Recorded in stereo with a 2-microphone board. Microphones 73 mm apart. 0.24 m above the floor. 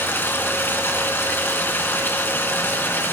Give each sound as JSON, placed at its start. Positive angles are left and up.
{"t": 0.0, "sound": "running water", "side_deg": 30, "distance_m": 2.5}